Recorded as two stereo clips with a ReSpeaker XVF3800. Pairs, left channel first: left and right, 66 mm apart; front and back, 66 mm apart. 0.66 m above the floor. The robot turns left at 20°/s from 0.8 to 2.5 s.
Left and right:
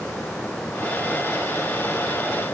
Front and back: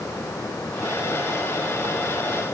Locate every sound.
Only background noise.